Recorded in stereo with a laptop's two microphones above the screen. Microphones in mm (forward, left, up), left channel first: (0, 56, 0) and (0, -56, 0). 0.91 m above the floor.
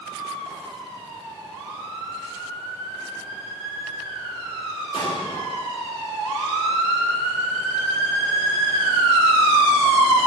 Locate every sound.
4.9 s an explosion: 60° left (ahead or behind), 2.5 m